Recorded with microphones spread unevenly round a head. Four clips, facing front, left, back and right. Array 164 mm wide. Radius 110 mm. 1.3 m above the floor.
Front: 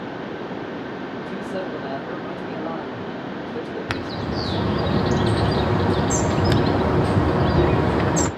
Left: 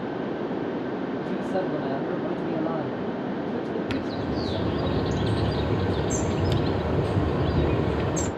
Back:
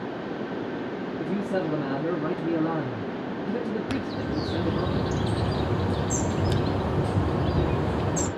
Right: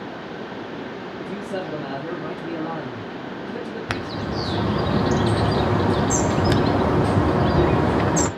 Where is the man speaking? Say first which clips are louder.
Even, back 3 dB; 165° left, 2.5 m.